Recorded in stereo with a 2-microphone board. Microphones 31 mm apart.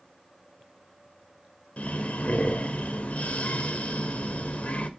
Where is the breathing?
45° left (ahead or behind), 0.8 m.